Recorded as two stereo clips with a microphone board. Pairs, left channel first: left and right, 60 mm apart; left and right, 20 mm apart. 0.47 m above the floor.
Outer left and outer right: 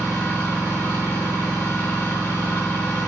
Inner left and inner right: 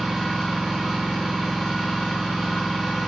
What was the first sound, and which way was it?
An engine running, 20° left (ahead or behind).